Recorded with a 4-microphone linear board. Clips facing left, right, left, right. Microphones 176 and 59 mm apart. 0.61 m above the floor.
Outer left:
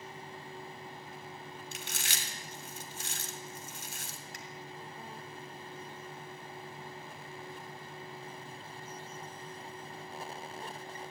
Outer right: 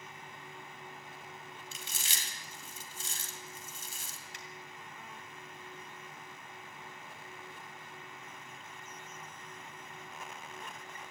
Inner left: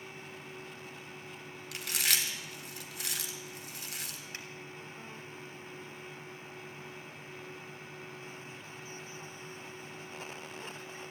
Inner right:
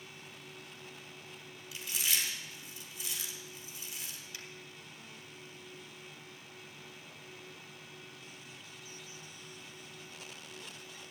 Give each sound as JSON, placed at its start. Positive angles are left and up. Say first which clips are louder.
{"t": 1.7, "sound": "chewing", "louder": "outer left 4 dB, inner left 3 dB", "side_deg": 75, "distance_m": 1.8}
{"t": 4.3, "sound": "a finger snap", "louder": "outer left 2 dB, inner left 4 dB", "side_deg": 45, "distance_m": 2.5}